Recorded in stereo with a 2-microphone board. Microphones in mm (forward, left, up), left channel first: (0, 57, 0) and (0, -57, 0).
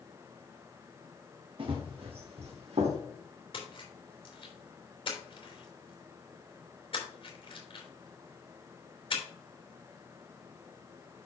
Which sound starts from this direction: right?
Running footsteps, at 1.6 s.